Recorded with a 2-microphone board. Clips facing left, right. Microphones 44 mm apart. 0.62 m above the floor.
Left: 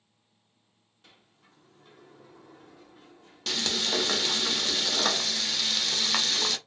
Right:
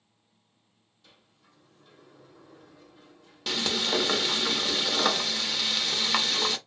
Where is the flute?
I don't hear a flute.